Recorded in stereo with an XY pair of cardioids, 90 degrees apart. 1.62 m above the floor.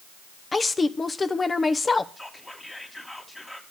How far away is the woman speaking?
About 0.9 m.